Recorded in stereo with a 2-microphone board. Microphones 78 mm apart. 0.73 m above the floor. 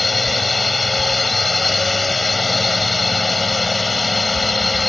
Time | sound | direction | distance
0.0 | a drone | centre (ahead or behind) | ?